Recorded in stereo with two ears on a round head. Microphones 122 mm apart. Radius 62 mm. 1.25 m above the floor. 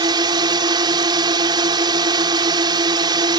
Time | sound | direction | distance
0.0 | a drone | 35° right (ahead or behind) | ?